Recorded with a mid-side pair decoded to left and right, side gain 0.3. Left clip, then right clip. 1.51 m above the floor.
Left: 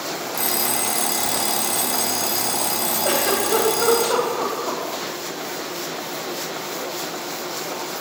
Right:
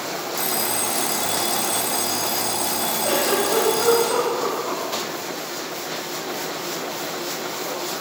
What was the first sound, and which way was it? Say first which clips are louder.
An alarm clock: left 1 dB; 50° left.